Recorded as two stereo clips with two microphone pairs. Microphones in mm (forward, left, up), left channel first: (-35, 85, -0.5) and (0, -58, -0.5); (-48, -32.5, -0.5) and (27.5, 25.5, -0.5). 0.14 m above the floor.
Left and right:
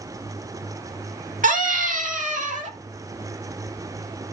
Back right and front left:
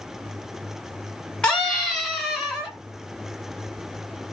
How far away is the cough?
No cough in this recording.